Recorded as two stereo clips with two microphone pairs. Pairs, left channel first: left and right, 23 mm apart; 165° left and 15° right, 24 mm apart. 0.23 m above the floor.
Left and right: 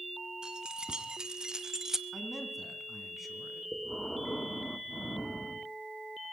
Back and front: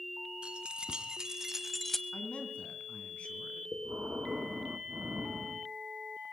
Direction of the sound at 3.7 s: 20° left.